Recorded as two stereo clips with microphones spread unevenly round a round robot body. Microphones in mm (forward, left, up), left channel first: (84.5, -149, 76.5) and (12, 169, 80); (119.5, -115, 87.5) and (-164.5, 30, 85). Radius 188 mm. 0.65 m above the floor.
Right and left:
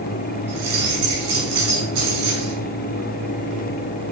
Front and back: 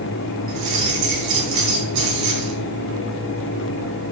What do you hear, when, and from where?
0.5 s keys jangling: 150° left, 5.5 m